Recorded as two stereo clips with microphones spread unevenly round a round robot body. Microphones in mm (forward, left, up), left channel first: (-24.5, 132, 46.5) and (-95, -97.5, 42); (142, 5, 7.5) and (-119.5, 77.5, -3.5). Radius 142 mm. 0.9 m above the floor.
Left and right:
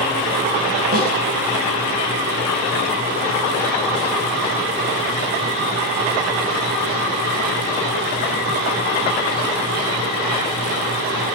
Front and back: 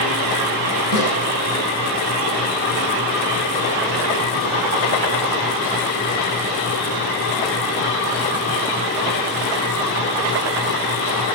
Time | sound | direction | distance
0.9 | a snare drum | 160° right | 5.5 m